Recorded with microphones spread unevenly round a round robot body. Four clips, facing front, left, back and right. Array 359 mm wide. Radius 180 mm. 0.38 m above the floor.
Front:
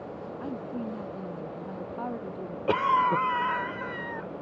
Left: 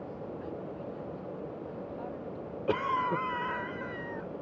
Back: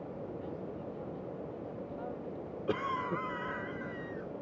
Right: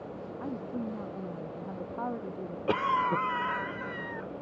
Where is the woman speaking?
40° right.